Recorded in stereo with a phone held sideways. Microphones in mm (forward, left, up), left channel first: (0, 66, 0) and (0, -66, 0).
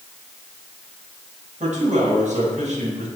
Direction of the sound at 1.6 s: 65° right (ahead or behind).